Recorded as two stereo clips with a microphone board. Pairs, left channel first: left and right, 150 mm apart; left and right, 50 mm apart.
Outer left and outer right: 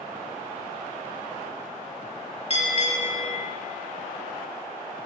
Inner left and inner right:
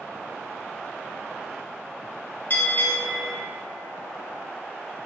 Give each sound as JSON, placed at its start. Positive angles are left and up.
{"t": 2.5, "sound": "a bell", "side_deg": 40, "distance_m": 0.6}